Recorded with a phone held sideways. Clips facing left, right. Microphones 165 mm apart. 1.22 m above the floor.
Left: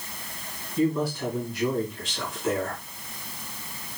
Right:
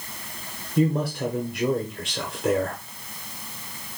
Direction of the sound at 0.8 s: 65° right (ahead or behind).